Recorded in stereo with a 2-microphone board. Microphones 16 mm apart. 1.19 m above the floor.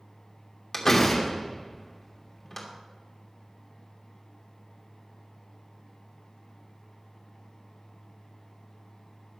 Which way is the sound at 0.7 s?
20° left (ahead or behind).